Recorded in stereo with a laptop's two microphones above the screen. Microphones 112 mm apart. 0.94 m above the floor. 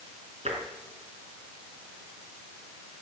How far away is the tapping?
About 3.5 m.